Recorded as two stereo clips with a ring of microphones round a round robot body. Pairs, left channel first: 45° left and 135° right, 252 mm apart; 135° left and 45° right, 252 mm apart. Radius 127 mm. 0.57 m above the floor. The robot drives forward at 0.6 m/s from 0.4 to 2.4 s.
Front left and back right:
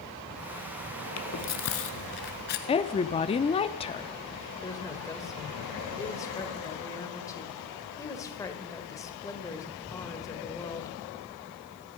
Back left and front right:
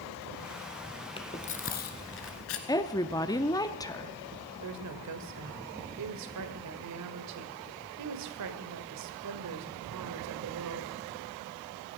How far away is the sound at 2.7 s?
About 0.7 m.